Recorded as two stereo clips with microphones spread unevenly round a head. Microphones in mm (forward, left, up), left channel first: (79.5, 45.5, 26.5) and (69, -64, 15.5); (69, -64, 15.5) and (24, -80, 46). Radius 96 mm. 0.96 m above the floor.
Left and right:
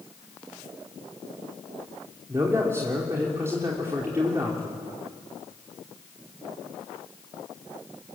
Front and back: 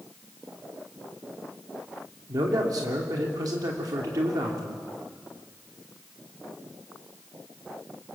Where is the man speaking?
170° right, 2.5 m.